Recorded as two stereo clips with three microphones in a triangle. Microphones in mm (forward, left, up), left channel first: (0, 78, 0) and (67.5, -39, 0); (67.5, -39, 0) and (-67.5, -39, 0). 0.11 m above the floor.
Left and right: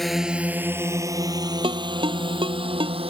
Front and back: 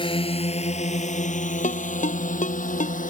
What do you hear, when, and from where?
0.0 s a drone: 30° left; by 3.1 s 15° right
1.6 s a ringtone: 10° right